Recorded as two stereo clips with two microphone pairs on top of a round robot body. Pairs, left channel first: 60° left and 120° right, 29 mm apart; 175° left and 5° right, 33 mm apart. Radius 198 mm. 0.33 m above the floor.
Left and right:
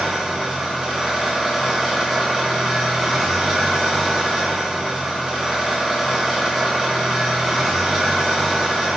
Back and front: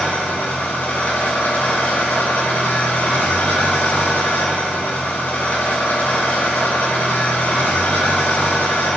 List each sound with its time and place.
0.0 s an engine running: 155° left, 4.5 m